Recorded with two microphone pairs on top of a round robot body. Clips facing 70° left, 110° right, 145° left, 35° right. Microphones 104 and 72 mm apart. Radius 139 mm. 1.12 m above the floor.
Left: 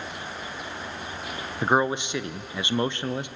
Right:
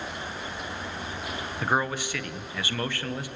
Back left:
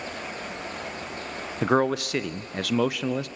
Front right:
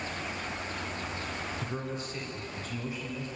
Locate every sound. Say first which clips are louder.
1.6 s a man speaking: left 5 dB, back left 14 dB; 145° left, 0.7 m